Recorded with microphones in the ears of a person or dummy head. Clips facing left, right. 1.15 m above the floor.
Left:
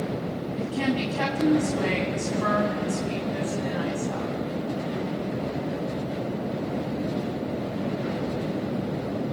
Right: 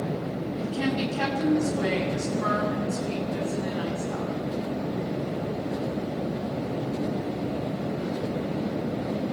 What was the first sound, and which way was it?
A woman speaking, 50° left (ahead or behind).